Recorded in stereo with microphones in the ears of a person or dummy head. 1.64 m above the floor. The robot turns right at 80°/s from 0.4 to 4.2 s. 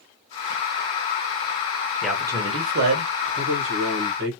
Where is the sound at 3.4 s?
135° right, 1.3 m; by 4.3 s 70° right, 1.3 m.